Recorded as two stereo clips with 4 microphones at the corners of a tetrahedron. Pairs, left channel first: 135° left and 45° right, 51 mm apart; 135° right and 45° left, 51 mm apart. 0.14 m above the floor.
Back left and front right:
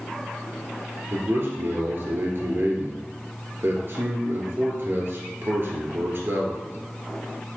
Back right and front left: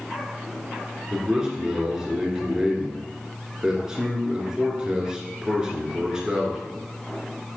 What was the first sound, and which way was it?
A man speaking, 25° right.